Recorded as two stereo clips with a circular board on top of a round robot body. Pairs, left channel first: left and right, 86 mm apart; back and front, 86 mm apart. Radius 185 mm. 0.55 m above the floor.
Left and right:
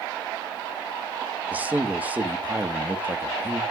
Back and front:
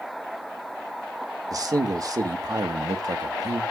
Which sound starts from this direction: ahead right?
A man speaking, at 1.5 s.